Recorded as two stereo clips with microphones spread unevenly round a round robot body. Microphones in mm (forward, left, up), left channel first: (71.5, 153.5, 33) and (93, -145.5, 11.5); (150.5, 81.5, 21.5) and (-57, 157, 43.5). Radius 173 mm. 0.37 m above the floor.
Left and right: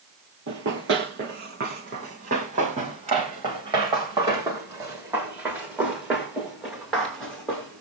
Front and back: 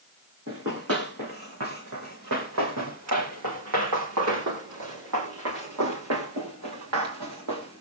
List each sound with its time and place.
0.5 s running footsteps: 145° right, 4 m; by 7.8 s straight behind, 6.5 m